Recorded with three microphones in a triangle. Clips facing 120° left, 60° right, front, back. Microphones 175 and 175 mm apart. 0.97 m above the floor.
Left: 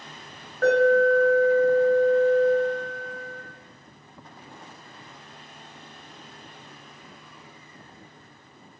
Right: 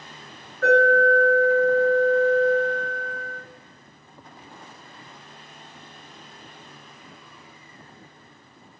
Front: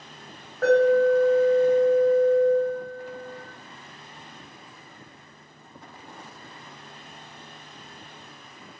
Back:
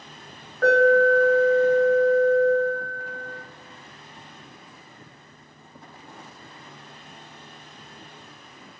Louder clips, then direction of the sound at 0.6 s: Even, back 1 dB; 85° left.